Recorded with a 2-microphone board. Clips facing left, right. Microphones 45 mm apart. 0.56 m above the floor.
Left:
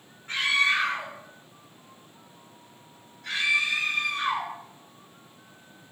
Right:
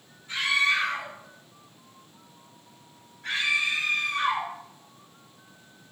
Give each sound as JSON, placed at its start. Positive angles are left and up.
{"t": 0.3, "sound": "a scream", "side_deg": 50, "distance_m": 1.7}